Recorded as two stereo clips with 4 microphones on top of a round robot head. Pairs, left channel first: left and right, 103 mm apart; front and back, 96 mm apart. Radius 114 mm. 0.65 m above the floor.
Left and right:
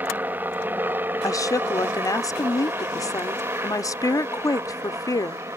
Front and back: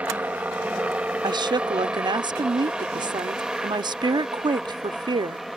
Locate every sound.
0.0 s a helicopter: 130° right; by 5.6 s 95° right
1.2 s a woman speaking: 145° left